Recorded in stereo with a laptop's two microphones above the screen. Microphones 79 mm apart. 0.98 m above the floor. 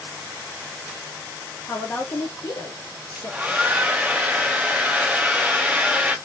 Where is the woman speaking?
15° left (ahead or behind), 0.8 m; by 3.9 s 40° left (ahead or behind), 1.5 m.